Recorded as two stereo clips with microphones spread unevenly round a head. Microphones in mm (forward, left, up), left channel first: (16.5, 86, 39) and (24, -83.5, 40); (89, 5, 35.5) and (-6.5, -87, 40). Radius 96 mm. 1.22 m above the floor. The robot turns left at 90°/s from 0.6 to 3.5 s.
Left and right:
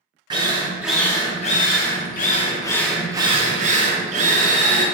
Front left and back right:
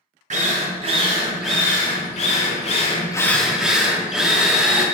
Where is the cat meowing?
I don't hear a cat meowing.